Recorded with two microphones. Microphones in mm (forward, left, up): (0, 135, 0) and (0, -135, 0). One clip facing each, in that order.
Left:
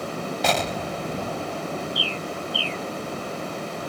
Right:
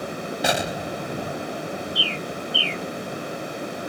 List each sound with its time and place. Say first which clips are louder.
0.4 s an explosion: right 1 dB; 10° right (ahead or behind)
1.9 s a bird: even; 85° right